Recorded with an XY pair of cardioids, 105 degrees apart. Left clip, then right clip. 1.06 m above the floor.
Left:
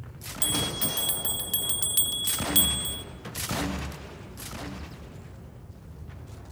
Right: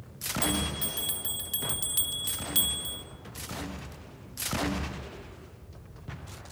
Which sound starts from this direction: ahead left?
A bell, at 0.4 s.